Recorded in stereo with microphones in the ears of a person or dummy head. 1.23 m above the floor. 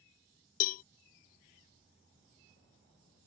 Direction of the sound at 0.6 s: 45° left (ahead or behind).